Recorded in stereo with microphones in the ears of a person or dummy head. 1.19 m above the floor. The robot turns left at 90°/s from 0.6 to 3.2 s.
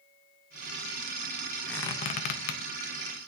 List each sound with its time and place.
1.7 s a squeak: 5° left (ahead or behind), 0.6 m; by 2.6 s 55° left (ahead or behind), 0.6 m